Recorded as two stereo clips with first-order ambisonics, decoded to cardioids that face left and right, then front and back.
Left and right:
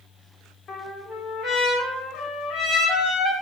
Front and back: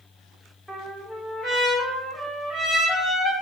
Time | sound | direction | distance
0.7 | a trumpet | 100° left | 1.2 m